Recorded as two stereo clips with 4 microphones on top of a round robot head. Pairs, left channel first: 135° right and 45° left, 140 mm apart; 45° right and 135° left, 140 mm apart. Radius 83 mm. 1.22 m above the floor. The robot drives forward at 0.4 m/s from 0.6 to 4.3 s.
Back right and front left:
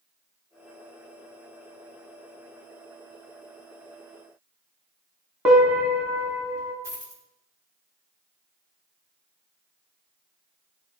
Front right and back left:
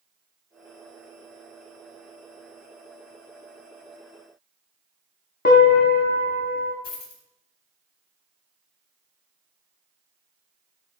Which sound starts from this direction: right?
A dropped coin, at 6.8 s.